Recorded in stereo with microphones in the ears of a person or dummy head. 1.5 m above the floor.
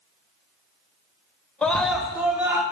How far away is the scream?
About 0.9 m.